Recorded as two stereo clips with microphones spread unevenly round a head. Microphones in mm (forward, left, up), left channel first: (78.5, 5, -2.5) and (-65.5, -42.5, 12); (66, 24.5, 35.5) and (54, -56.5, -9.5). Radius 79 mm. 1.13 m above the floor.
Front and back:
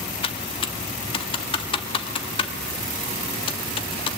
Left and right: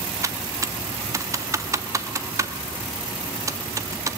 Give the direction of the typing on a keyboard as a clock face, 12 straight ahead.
1 o'clock.